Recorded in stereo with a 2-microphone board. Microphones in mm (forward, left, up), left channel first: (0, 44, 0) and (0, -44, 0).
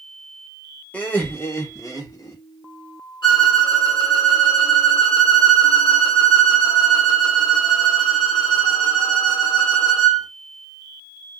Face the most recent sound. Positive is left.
turn(degrees=60)  # may be behind; listen again after turning